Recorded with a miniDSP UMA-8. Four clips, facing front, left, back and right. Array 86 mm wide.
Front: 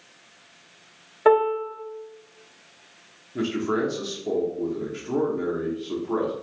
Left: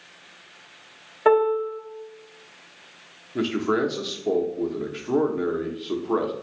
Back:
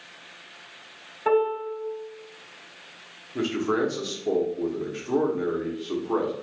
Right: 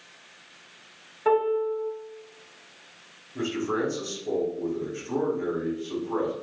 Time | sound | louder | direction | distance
1.2 | a piano | left 4 dB, front 4 dB | 40° left | 1.0 m
3.4 | a man speaking | left 4 dB, even | 100° left | 0.9 m